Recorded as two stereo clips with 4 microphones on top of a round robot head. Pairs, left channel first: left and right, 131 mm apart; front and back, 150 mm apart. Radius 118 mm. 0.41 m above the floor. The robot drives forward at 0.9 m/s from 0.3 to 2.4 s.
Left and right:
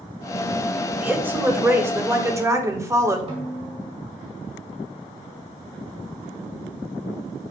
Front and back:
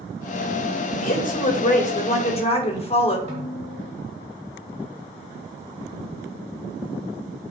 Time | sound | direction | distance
1.0 | a woman speaking | 15° right | 3 m
3.3 | a snare drum | 135° right | 2 m